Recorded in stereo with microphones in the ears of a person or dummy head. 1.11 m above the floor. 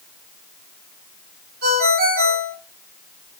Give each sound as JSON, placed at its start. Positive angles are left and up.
{"t": 1.6, "sound": "a ringtone", "side_deg": -50, "distance_m": 1.9}